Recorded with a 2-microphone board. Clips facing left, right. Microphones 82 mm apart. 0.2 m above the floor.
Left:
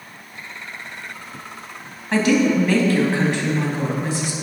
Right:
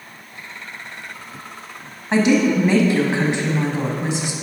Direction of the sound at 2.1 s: 20° right (ahead or behind).